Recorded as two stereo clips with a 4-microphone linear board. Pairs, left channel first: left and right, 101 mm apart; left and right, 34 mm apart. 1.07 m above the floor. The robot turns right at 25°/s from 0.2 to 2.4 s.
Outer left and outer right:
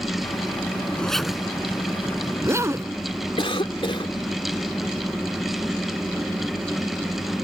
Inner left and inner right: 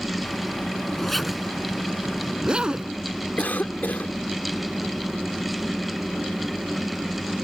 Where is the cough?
60° left (ahead or behind).